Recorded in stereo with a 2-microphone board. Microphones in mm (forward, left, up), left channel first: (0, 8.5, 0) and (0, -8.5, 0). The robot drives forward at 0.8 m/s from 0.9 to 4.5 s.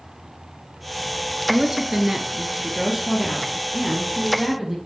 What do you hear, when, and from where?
1.5 s a woman speaking: 30° right (ahead or behind), 1.3 m; by 4.8 s 15° right (ahead or behind), 3 m